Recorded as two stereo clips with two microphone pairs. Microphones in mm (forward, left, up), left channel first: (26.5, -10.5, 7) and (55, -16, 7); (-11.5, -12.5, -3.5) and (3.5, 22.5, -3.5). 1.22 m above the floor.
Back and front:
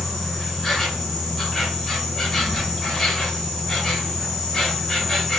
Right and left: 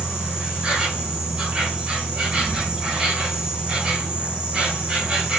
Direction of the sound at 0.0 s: 105° left.